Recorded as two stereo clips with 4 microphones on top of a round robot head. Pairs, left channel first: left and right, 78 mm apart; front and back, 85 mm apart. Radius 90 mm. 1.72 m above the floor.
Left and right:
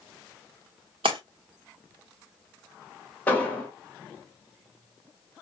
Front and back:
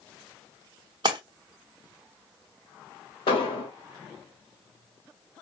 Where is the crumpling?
No crumpling in this recording.